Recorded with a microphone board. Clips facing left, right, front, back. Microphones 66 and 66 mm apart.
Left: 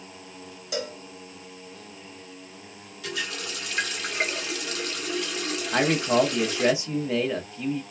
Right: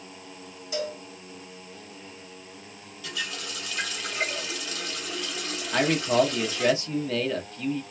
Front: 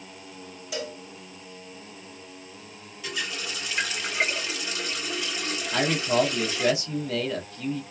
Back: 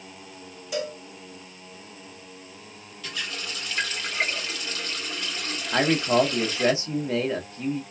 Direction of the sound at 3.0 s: 75° left.